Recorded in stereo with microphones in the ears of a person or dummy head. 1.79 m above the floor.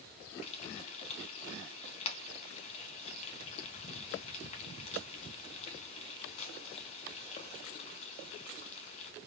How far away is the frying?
About 4 m.